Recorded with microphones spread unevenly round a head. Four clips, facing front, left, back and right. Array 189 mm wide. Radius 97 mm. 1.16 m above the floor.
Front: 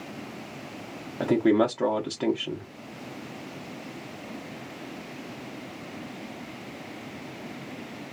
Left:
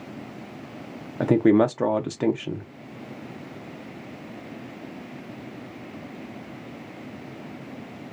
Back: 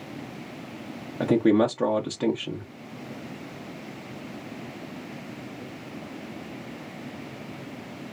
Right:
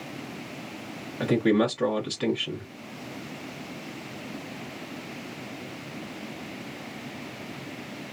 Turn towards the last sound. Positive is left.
turn(degrees=100)